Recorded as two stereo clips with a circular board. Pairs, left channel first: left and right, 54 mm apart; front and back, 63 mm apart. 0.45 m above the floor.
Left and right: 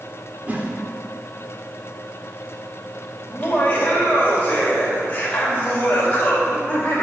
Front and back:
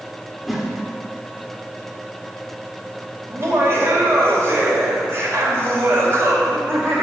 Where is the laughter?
145° left, 2 m.